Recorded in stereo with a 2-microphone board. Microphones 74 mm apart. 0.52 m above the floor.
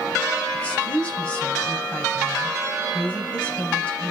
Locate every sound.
0.5 s a woman speaking: 15° left (ahead or behind), 3 m